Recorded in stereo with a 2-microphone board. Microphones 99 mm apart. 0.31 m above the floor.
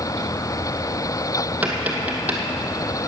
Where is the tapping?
15° right (ahead or behind), 1.8 m.